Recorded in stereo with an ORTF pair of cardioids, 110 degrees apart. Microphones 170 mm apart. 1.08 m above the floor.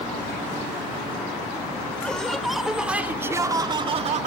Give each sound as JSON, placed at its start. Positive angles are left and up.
{"t": 2.0, "sound": "laughter", "azimuth_deg": 5}